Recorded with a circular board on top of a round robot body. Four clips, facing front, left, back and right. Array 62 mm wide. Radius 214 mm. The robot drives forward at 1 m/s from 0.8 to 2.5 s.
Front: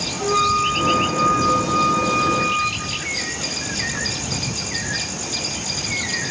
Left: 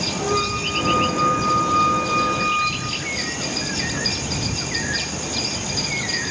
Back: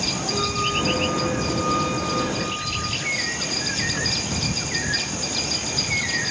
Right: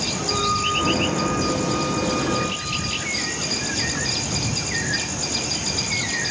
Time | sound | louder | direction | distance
0.2 | a flute | even, front 9 dB | 15° left | 3 m